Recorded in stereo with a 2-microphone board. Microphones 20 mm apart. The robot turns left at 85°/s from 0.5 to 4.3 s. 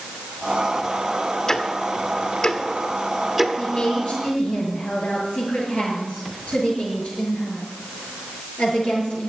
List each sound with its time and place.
1.5 s ticking: 25° left (ahead or behind), 1.3 m; by 3.5 s 20° right (ahead or behind), 1.3 m
3.6 s a woman speaking: 145° left, 7 m; by 9.3 s 85° left, 7 m